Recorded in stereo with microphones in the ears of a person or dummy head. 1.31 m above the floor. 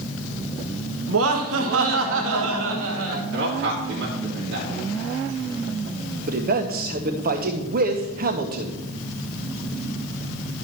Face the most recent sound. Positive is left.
turn(degrees=-45)  # may be behind; listen again after turning